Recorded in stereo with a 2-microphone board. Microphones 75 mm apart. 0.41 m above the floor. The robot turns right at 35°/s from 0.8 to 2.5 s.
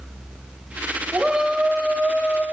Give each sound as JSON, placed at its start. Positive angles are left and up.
{"t": 1.1, "sound": "a shout", "azimuth_deg": -20, "distance_m": 1.4}